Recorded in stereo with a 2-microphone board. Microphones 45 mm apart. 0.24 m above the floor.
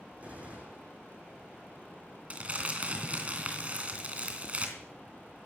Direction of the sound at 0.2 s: 35° right (ahead or behind).